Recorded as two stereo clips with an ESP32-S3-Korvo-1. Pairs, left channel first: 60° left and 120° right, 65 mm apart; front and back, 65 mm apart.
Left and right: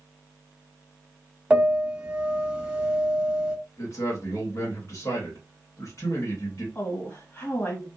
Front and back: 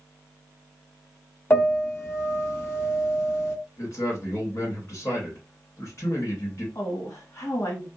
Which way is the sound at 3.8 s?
30° left.